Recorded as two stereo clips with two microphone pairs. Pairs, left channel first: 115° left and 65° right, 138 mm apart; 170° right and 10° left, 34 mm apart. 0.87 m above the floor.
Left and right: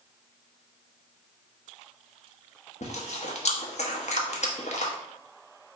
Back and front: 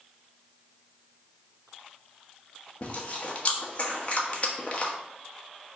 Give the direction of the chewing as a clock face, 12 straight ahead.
7 o'clock.